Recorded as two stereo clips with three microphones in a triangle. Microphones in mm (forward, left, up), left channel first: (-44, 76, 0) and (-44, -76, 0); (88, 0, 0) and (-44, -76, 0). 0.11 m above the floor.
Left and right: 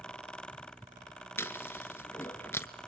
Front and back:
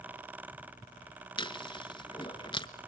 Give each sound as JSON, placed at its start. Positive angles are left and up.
{"t": 1.4, "sound": "chewing", "azimuth_deg": 30, "distance_m": 1.0}